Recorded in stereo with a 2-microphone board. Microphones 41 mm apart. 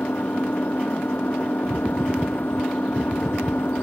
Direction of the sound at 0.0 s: 60° left (ahead or behind).